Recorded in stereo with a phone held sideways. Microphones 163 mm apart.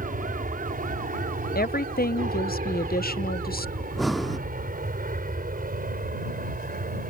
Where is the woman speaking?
65° left (ahead or behind).